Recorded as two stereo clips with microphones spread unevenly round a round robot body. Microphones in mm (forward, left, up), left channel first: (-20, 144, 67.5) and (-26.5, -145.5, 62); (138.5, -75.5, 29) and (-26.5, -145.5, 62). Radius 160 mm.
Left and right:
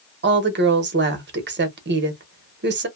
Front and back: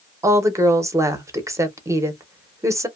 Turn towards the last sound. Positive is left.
turn(degrees=-75)